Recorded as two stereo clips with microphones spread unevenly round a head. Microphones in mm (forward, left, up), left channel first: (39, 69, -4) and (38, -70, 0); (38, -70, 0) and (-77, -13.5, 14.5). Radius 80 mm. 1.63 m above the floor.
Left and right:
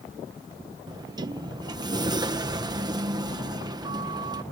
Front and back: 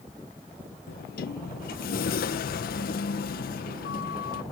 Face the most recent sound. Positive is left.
turn(degrees=-30)